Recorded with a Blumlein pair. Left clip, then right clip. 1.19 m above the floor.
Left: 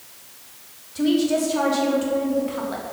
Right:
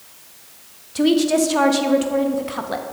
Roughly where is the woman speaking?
Ahead right.